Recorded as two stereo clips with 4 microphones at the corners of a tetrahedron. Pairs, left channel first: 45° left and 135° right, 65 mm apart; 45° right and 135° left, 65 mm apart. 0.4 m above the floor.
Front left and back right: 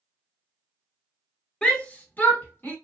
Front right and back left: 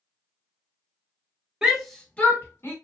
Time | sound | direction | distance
1.6 | a shout | 85° left | 0.8 m